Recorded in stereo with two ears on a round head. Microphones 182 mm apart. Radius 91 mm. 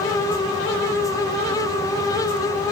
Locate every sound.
Only background noise.